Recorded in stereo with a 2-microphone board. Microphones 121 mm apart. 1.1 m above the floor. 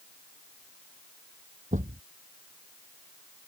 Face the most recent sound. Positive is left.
turn(degrees=-85)